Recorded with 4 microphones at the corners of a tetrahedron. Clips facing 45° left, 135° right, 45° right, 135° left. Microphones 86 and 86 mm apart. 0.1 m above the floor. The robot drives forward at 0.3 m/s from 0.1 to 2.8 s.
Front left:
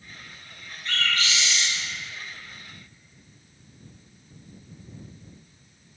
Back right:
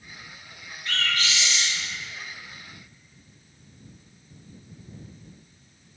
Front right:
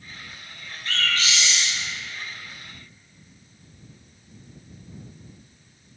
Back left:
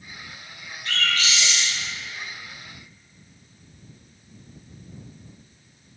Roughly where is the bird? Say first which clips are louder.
Even, even; ahead right.